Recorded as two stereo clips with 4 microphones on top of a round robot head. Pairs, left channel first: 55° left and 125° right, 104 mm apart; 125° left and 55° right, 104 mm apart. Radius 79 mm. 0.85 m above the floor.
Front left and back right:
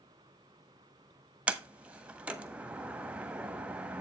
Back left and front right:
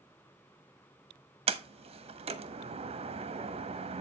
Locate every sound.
1.5 s a sliding door: 50° right, 1.3 m